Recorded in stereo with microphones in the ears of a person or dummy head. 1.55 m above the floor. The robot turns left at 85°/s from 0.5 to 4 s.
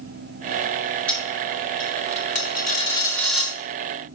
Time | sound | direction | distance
1.1 | a dropped coin | 10° right (ahead or behind) | 1.1 m